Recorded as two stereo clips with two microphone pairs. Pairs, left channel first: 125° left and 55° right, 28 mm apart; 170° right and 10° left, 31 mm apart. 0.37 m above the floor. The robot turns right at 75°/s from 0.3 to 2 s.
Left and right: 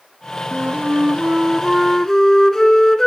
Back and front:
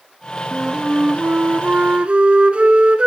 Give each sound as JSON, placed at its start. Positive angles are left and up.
{"t": 0.5, "sound": "a flute", "azimuth_deg": -60, "distance_m": 1.0}